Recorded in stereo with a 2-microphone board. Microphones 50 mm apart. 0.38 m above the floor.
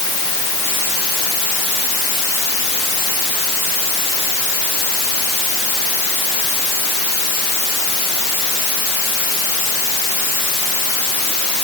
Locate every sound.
Only background noise.